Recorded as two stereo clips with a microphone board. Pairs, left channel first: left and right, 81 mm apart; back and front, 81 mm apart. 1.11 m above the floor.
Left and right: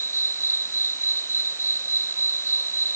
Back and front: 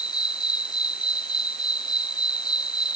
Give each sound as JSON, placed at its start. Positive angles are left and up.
{"t": 0.0, "sound": "an insect", "azimuth_deg": 150}